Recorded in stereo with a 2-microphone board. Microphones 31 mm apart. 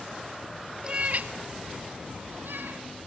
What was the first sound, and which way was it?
A cat meowing, 30° right (ahead or behind).